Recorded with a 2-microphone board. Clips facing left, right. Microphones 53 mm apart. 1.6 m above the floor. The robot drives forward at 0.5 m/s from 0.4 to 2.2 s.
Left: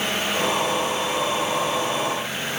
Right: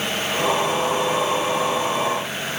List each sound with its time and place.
Only background noise.